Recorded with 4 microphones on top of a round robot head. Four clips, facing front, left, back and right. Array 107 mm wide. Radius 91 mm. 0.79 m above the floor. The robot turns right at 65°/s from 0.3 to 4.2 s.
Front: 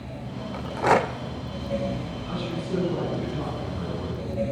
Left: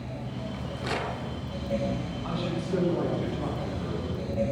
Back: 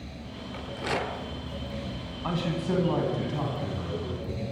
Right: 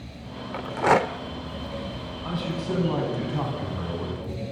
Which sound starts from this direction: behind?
A man speaking, at 2.2 s.